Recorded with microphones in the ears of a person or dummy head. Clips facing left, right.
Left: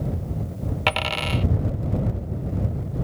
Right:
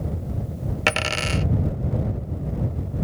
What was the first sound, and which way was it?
A dropped coin, 20° right (ahead or behind).